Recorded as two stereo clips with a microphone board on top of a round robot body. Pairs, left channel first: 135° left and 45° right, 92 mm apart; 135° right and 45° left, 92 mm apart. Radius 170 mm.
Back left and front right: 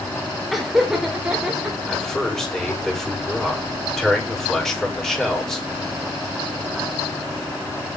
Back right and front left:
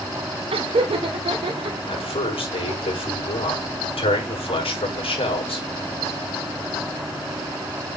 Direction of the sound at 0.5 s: 45° left.